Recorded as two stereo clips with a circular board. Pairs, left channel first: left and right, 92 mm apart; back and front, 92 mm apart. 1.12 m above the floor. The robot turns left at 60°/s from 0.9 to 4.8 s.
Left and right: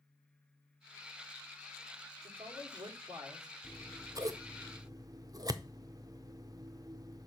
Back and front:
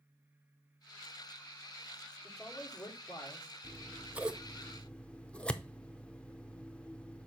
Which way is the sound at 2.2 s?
85° right.